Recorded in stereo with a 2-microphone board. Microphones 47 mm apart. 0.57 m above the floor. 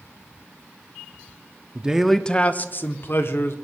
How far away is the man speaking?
About 0.6 m.